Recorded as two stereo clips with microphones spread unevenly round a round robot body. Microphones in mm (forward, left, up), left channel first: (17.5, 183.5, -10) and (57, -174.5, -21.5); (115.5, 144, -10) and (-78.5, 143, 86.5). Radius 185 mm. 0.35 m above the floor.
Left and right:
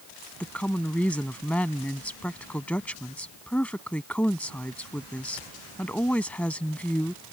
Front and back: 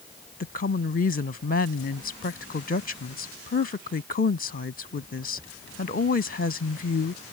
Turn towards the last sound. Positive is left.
turn(degrees=10)